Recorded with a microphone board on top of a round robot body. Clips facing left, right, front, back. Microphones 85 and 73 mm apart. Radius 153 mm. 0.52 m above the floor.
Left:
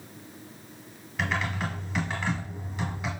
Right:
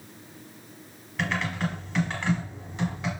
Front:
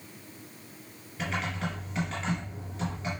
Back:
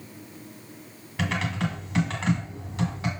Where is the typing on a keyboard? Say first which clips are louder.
Right 1 dB, back 4 dB; 175° left, 2 m.